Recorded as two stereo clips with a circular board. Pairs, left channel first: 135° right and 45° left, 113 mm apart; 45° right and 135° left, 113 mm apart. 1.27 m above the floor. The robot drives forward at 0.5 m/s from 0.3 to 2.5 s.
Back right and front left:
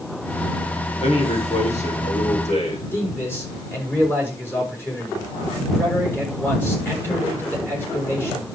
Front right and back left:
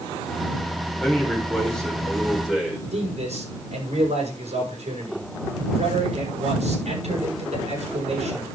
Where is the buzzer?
I don't hear a buzzer.